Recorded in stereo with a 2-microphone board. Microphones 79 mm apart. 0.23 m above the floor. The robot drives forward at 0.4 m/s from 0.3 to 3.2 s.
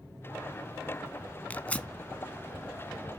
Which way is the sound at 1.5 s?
20° left (ahead or behind).